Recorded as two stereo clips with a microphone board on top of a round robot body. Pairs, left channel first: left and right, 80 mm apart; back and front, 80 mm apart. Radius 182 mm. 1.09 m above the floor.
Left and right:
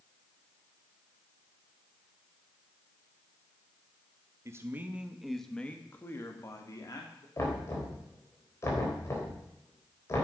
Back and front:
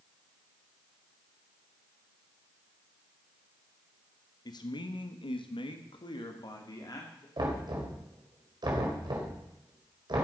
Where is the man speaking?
145° right, 1.6 m; by 7.3 s 135° left, 3 m.